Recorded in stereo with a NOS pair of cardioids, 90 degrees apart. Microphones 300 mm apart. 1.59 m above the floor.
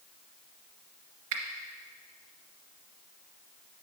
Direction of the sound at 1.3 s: 65° right.